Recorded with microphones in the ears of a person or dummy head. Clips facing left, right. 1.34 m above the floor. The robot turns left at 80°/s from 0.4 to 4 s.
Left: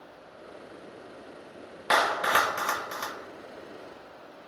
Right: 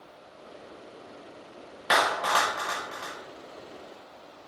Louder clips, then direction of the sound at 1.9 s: Even; 10° right (ahead or behind).